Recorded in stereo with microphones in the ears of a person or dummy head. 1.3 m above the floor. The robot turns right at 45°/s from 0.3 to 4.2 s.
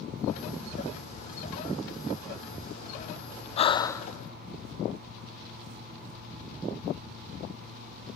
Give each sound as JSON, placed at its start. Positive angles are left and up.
{"t": 3.6, "sound": "breathing", "side_deg": 40, "distance_m": 0.6}